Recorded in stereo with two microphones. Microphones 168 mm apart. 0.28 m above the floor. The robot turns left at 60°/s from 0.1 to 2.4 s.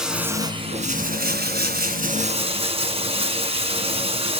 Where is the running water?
5° right, 1.4 m; by 4.4 s 140° right, 1.4 m.